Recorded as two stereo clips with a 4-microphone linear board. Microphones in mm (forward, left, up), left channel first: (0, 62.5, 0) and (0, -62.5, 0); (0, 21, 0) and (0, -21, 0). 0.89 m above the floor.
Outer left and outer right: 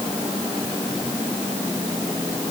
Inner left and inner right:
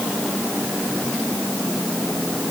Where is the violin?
I don't hear a violin.